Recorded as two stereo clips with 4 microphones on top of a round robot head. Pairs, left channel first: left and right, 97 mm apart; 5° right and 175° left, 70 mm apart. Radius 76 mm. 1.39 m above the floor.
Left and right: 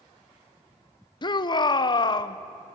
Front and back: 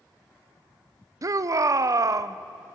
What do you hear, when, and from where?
1.2 s a shout: 135° left, 0.8 m